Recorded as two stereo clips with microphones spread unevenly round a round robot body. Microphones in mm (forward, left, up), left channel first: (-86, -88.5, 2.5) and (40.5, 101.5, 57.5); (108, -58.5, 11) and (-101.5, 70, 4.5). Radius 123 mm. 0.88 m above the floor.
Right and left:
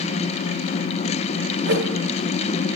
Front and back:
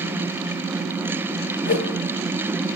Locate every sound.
1.7 s a whoosh: 20° left, 0.6 m